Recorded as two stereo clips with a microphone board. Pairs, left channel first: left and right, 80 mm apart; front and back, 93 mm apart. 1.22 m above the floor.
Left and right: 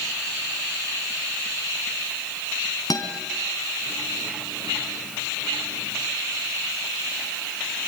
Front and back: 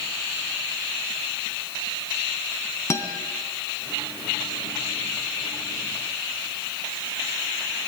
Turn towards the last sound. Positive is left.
turn(degrees=55)